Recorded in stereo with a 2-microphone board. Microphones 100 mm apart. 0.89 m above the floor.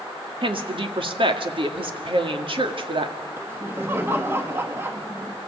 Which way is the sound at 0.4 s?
60° right (ahead or behind).